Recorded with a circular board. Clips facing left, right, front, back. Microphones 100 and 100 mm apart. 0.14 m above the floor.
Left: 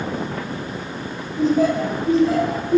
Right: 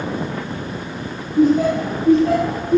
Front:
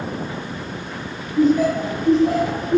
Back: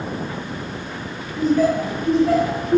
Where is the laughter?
80° right, 1.9 m; by 2.8 s 60° right, 2.5 m.